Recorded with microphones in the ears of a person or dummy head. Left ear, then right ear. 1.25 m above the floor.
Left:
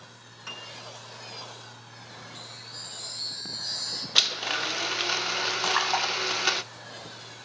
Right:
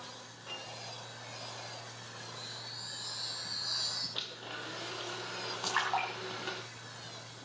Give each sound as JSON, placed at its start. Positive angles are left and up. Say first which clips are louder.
{"t": 0.5, "sound": "a piano", "louder": "left 4 dB", "side_deg": 75, "distance_m": 7.0}
{"t": 2.4, "sound": "a chime", "louder": "left 3 dB", "side_deg": 25, "distance_m": 1.7}
{"t": 4.2, "sound": "a blender", "louder": "left 16 dB", "side_deg": 70, "distance_m": 0.6}
{"t": 5.6, "sound": "a splash", "louder": "left 5 dB", "side_deg": 10, "distance_m": 3.0}